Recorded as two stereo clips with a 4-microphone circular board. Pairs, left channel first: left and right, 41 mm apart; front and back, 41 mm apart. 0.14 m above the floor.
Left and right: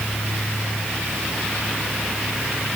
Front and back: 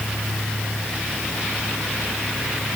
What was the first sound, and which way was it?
Only background noise.